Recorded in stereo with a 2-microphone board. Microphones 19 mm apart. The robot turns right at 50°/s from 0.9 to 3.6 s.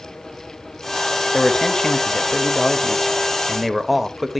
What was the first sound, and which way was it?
A man speaking, 70° left.